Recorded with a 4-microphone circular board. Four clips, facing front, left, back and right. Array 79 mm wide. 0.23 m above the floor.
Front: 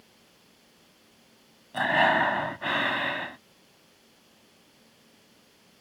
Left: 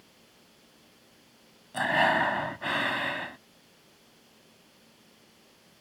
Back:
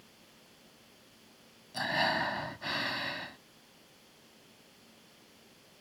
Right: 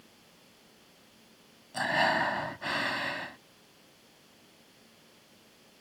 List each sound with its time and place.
1.7 s breathing: 15° left